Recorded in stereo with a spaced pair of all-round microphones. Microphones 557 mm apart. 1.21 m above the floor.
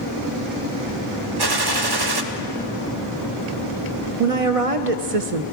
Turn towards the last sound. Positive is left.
turn(degrees=-80)